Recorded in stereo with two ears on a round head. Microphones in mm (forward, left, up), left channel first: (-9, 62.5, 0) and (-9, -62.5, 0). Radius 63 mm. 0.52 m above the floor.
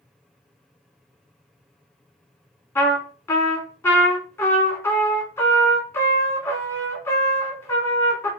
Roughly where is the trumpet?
Centre.